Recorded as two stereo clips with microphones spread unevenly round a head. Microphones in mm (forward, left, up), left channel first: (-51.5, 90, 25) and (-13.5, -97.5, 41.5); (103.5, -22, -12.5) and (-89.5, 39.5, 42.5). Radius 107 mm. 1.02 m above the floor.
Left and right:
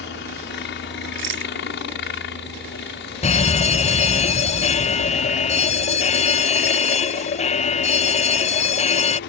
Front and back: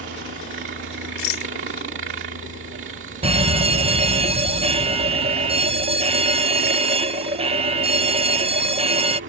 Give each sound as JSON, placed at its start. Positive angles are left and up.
{"t": 0.0, "sound": "a helicopter", "azimuth_deg": 125}
{"t": 1.2, "sound": "a rattle", "azimuth_deg": -40}
{"t": 3.2, "sound": "a fire alarm", "azimuth_deg": 95}